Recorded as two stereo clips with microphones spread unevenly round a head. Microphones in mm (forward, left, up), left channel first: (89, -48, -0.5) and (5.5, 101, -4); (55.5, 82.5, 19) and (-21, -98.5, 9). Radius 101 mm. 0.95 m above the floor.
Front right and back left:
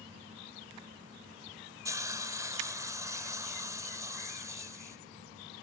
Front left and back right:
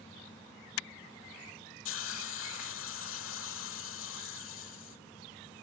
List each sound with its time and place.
1.9 s a hiss: 45° left, 1.7 m